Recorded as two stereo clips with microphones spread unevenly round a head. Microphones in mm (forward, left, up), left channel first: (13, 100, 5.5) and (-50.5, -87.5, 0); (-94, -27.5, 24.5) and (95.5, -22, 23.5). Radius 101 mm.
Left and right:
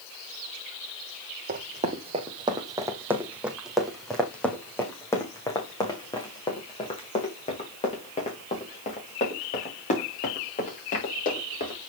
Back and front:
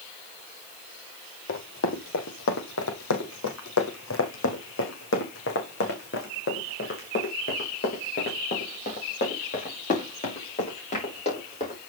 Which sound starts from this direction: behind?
Running footsteps, at 1.5 s.